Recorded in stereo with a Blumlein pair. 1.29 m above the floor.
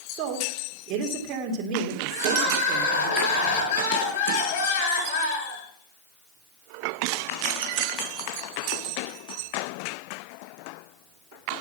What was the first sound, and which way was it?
A woman speaking, 35° right.